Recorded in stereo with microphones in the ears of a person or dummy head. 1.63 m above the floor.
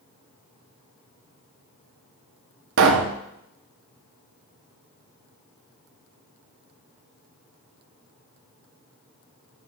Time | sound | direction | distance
2.8 | a pop | 70° right (ahead or behind) | 1.4 m